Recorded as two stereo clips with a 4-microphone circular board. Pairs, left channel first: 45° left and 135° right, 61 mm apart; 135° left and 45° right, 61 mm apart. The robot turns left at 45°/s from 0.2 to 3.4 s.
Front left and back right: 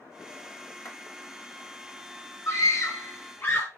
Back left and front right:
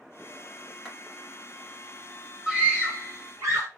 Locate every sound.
0.8 s a clap: 60° left, 1.7 m; by 1.0 s 55° left, 1.7 m
2.5 s a scream: 30° left, 2.5 m; by 3.7 s 10° right, 2.5 m